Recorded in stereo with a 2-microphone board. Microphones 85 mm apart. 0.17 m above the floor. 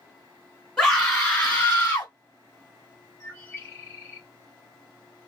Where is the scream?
10° left (ahead or behind), 1.4 m; by 2.1 s 30° left (ahead or behind), 1.5 m.